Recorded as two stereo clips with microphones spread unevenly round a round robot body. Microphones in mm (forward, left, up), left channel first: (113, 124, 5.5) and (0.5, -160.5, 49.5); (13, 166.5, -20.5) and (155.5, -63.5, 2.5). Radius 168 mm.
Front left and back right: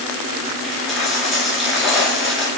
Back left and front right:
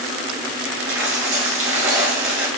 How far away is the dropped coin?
About 1.7 m.